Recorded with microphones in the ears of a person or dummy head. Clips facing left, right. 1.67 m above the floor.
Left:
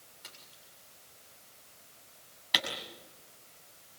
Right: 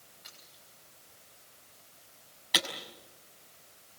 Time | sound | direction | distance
0.2 | a splash | 65° left (ahead or behind) | 7 m
2.5 | a camera shutter | 5° left (ahead or behind) | 5.5 m